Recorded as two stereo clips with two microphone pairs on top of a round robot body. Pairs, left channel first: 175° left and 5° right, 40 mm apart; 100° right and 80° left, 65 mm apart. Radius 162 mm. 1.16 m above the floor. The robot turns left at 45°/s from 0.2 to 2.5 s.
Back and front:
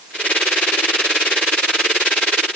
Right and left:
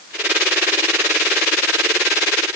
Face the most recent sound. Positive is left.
No sound to turn to.